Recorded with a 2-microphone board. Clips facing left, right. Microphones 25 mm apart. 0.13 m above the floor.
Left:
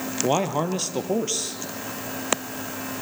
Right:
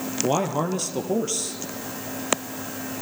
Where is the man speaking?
15° left (ahead or behind), 2.5 m.